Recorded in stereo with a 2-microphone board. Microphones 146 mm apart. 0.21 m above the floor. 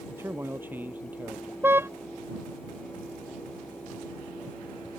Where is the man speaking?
15° right (ahead or behind); by 1.5 s 10° right (ahead or behind).